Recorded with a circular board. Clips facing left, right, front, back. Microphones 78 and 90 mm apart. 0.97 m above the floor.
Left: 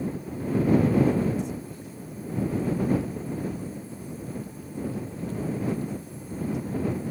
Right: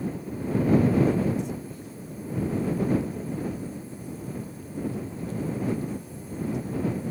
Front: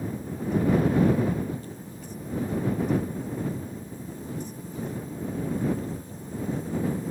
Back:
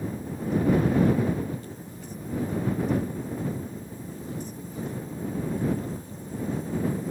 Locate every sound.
Only background noise.